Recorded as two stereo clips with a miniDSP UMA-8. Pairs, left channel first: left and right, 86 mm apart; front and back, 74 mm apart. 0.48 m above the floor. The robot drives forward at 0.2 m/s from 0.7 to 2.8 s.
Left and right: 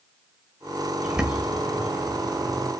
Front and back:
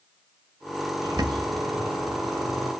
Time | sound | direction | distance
1.0 | a bird | 170° right | 0.7 m